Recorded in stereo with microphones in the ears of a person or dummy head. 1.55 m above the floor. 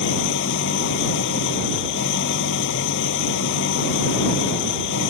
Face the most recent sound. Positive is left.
turn(degrees=65)  # may be behind; listen again after turning